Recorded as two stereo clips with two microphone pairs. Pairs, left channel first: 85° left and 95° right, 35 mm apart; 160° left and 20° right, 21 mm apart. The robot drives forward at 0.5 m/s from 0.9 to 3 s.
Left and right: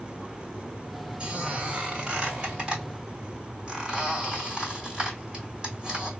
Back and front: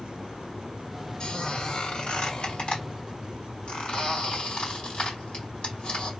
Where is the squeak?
155° right, 1.6 m; by 6.1 s 165° right, 2.5 m.